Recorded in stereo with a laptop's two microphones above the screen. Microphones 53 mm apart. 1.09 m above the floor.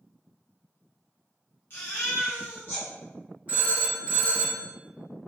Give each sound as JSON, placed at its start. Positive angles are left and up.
{"t": 1.7, "sound": "a baby crying", "side_deg": 45, "distance_m": 0.9}
{"t": 3.5, "sound": "a phone ringing", "side_deg": -25, "distance_m": 1.1}